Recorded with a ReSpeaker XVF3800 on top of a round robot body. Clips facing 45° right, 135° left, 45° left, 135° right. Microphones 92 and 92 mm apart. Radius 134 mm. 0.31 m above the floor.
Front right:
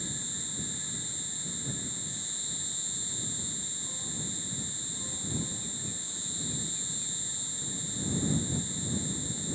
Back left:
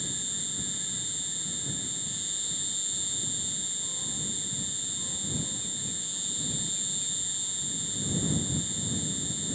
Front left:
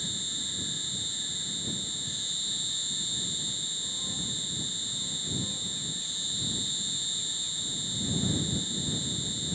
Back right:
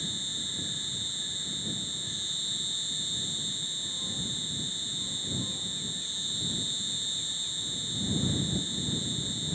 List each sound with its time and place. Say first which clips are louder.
0.0 s an insect: even, back right 1 dB; 170° left